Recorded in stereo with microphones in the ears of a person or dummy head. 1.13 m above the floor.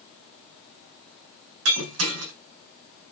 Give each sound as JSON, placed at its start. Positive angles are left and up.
{"t": 1.6, "sound": "breaking glass", "side_deg": -80, "distance_m": 4.0}